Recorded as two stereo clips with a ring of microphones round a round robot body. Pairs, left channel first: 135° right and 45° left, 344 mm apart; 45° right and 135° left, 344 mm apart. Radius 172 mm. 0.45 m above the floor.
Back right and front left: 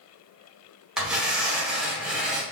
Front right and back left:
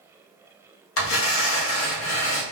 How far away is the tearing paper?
About 0.8 m.